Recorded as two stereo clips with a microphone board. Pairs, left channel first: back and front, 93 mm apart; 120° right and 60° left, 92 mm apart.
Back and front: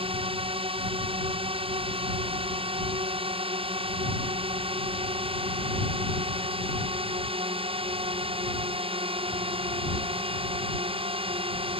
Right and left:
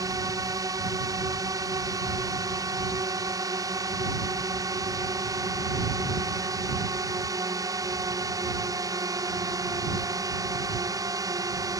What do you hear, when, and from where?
0.0 s a drone: 10° left